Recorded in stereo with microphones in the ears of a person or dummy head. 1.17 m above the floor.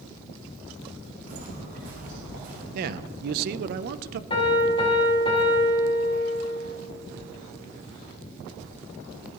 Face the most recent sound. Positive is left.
turn(degrees=25)  # may be behind; listen again after turning